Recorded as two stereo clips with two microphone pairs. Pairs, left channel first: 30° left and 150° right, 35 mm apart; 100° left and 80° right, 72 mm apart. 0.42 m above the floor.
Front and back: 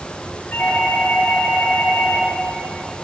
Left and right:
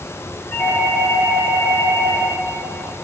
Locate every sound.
0.5 s a doorbell: 50° left, 9 m